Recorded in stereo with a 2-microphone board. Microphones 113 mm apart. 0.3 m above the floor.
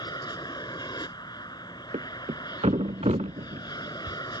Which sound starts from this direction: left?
An aircraft, at 0.0 s.